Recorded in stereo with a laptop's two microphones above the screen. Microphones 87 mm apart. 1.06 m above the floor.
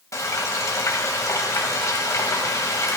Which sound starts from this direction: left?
Frying, at 0.1 s.